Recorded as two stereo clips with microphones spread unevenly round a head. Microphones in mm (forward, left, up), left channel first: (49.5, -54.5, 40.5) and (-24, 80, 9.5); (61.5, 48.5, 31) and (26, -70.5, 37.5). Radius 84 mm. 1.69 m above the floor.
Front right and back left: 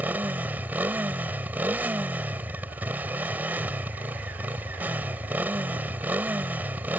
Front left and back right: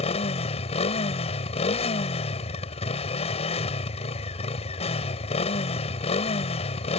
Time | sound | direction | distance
0.0 | a motorcycle | 35° left | ?